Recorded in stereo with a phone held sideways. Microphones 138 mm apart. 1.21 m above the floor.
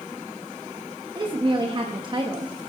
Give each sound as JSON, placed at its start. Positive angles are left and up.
{"t": 1.1, "sound": "a woman speaking", "side_deg": -30, "distance_m": 1.4}